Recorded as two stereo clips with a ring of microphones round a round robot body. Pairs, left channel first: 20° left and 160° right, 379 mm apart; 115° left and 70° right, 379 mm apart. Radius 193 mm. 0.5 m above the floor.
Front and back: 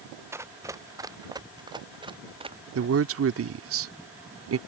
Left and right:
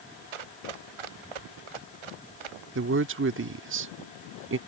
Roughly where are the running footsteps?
Right.